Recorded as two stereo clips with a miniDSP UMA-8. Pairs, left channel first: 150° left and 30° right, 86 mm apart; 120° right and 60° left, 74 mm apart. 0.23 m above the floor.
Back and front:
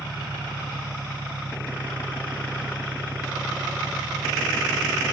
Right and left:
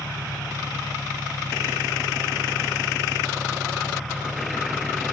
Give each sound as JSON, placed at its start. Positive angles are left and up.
{"t": 0.0, "sound": "an engine running", "azimuth_deg": 0}